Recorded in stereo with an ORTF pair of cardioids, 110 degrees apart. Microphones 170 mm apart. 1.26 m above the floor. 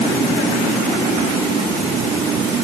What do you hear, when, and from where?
Only background noise.